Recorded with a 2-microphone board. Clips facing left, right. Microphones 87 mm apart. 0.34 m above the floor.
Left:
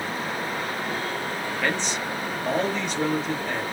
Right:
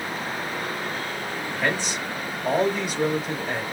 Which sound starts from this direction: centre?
A man speaking, at 1.6 s.